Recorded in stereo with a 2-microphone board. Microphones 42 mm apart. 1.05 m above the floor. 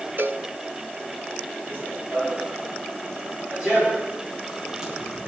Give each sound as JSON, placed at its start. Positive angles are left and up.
{"t": 0.2, "sound": "a cowbell", "side_deg": -55, "distance_m": 1.5}
{"t": 1.7, "sound": "running footsteps", "side_deg": -45, "distance_m": 5.5}